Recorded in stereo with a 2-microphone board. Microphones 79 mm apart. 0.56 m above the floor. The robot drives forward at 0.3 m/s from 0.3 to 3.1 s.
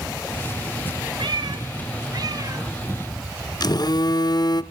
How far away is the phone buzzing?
About 0.5 m.